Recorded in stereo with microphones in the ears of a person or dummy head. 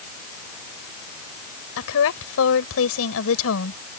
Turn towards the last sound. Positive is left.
turn(degrees=75)  # may be behind; listen again after turning